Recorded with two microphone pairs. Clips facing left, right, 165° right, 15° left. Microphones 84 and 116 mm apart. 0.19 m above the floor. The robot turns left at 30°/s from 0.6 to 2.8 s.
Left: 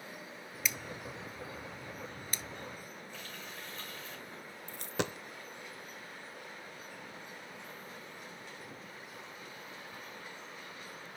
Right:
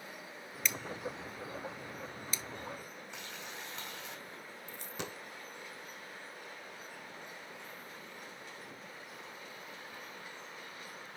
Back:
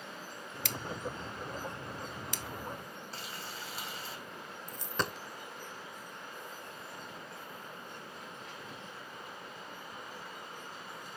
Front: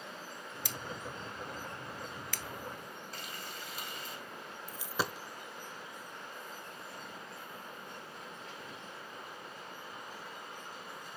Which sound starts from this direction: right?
Frying, at 3.1 s.